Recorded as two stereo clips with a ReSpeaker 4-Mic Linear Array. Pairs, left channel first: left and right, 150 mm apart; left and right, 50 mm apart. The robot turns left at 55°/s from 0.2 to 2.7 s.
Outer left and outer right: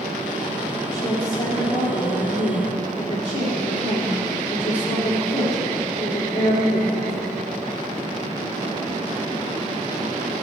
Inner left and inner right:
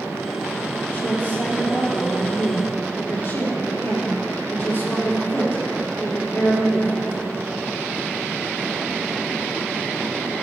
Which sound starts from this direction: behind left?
A woman speaking, at 0.9 s.